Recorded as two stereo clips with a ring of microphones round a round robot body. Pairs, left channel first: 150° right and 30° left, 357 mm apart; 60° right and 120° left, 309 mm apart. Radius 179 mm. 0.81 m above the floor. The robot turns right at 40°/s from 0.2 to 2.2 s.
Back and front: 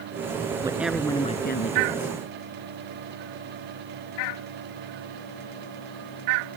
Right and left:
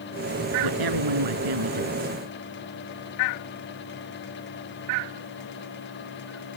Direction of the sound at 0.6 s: 110° left.